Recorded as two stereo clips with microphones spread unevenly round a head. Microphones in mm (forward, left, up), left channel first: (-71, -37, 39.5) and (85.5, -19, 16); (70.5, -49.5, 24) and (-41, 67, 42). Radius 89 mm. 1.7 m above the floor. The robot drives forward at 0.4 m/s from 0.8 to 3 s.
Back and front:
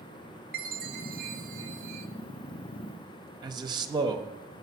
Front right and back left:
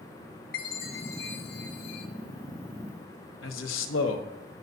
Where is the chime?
25° right, 1.3 m; by 2.1 s 40° right, 0.9 m.